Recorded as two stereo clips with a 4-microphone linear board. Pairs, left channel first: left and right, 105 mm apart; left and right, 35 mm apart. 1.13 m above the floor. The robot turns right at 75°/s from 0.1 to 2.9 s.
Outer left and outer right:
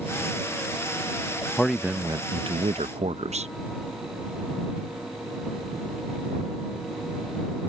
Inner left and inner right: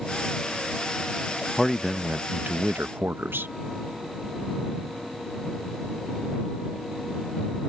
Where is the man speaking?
170° left; by 3.5 s 90° right.